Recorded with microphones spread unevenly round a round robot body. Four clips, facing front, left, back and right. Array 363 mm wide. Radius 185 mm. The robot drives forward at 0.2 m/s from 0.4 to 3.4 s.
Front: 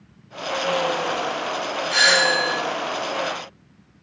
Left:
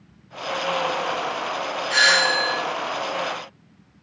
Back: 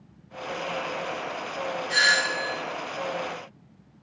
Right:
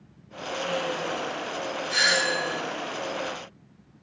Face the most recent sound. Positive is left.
turn(degrees=-160)